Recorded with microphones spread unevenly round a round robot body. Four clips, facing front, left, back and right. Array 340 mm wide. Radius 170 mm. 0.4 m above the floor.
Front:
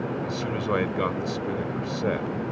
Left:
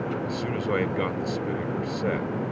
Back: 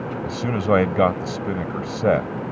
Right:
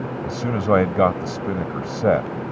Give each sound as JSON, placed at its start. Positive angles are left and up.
{"t": 0.2, "sound": "a man speaking", "azimuth_deg": -130}